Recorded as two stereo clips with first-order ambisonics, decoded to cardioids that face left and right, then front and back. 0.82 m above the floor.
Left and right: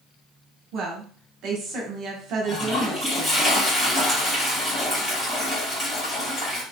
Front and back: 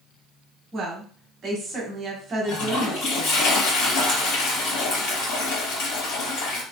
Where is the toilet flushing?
15° left, 2 m.